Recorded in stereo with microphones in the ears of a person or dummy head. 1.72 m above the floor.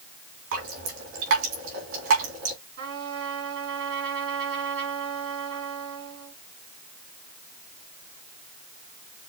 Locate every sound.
0.5 s dripping: 70° right (ahead or behind), 2.5 m
2.8 s a trumpet: 65° right (ahead or behind), 3.5 m